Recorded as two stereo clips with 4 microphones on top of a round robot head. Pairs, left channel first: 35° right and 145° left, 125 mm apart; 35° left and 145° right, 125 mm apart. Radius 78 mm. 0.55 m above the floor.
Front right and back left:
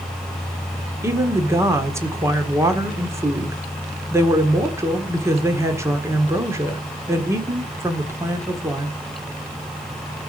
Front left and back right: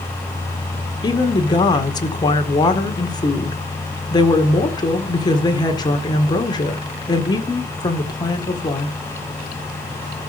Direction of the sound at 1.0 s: 85° left.